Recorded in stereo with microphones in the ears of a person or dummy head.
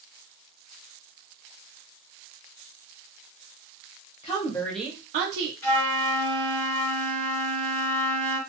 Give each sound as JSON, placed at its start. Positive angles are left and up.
{"t": 4.2, "sound": "a woman speaking", "side_deg": 30, "distance_m": 1.2}
{"t": 5.6, "sound": "a flute", "side_deg": 15, "distance_m": 1.7}